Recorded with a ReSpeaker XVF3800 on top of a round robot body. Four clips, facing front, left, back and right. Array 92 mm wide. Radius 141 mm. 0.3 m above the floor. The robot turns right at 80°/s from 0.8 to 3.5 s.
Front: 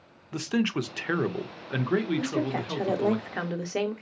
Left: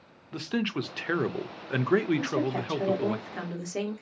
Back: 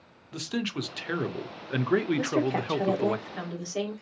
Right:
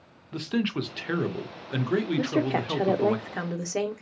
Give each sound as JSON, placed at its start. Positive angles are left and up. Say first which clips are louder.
{"t": 0.3, "sound": "a man speaking", "louder": "right 2 dB, front 5 dB", "azimuth_deg": 15, "distance_m": 0.9}
{"t": 2.2, "sound": "a woman speaking", "louder": "right 3 dB, back 2 dB", "azimuth_deg": -125, "distance_m": 1.5}